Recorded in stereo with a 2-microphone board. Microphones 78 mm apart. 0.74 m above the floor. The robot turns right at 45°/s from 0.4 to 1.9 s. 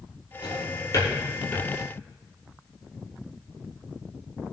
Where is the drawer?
75° left (ahead or behind), 5.5 m; by 1.7 s 20° left (ahead or behind), 5.5 m.